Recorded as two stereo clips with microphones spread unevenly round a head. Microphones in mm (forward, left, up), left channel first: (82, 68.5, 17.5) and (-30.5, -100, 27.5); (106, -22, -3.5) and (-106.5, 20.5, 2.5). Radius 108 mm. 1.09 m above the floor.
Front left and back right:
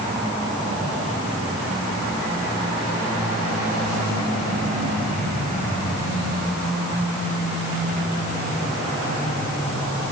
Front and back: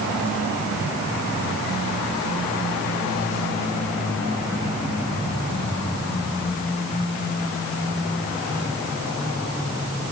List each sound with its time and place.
Only background noise.